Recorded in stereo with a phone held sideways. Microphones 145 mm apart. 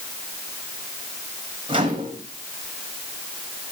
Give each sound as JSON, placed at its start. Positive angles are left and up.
{"t": 1.7, "sound": "a microwave", "side_deg": -35, "distance_m": 3.5}